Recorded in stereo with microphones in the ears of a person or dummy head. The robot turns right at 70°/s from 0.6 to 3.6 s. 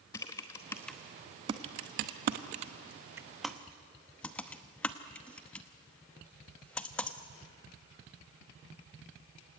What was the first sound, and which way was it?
Typing on a keyboard, 15° left (ahead or behind).